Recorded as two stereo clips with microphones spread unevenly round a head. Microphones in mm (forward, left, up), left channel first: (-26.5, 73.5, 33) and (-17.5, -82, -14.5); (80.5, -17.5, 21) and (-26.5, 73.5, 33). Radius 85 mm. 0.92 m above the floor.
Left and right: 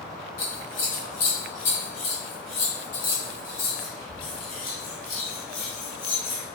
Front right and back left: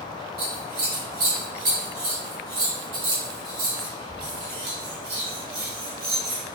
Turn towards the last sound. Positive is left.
turn(degrees=130)